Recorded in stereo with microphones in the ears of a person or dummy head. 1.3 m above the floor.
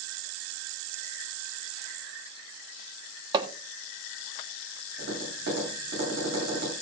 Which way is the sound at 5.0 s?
55° right (ahead or behind).